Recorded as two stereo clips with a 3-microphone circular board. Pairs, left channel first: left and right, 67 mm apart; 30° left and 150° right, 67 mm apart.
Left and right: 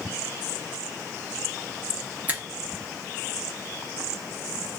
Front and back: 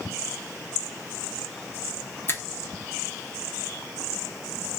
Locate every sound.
2.3 s a finger snap: 25° right, 1.1 m